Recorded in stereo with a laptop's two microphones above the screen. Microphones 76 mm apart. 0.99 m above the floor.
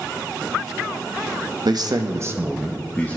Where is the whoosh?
I don't hear a whoosh.